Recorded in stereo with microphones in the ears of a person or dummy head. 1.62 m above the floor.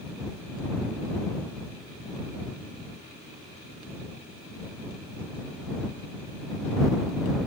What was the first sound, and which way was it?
Only background noise.